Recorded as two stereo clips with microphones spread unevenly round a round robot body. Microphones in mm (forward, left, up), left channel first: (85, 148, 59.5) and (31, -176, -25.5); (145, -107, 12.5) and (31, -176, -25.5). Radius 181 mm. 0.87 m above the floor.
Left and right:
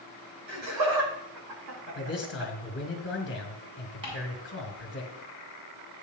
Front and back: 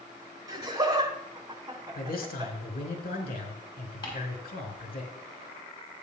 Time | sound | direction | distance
0.5 | laughter | 90° right | 4.5 m
1.9 | a man speaking | 20° left | 4 m
4.0 | ticking | 25° right | 6 m